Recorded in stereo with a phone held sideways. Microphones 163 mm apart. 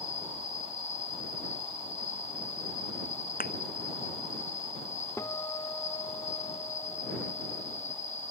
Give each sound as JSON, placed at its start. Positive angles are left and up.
{"t": 0.0, "sound": "an insect", "side_deg": 50}
{"t": 3.4, "sound": "a thud", "side_deg": 65}
{"t": 5.2, "sound": "a guitar", "side_deg": 20}